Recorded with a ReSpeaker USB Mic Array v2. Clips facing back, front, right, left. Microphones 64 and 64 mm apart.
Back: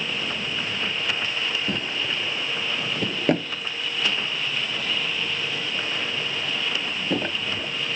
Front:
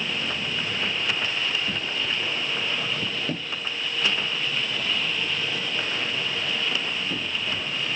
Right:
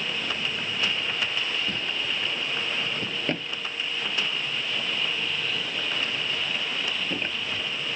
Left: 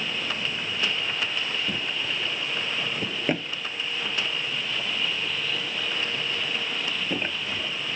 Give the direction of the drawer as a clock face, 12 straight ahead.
6 o'clock.